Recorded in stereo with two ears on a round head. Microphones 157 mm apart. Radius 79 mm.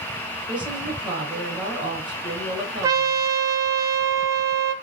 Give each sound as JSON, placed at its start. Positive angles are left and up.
{"t": 0.5, "sound": "a woman speaking", "side_deg": -10, "distance_m": 4.5}
{"t": 2.8, "sound": "a trumpet", "side_deg": -20, "distance_m": 1.3}